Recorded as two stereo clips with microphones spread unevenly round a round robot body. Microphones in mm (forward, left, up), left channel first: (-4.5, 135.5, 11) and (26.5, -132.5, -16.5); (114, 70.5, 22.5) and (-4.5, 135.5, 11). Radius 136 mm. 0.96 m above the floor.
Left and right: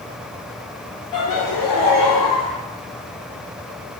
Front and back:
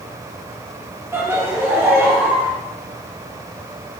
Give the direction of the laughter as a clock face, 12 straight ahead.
9 o'clock.